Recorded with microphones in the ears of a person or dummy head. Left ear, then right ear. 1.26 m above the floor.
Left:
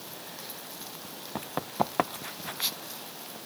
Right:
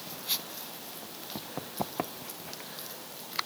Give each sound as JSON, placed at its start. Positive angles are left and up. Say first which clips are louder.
{"t": 1.4, "sound": "running footsteps", "louder": "left 7 dB", "side_deg": 65}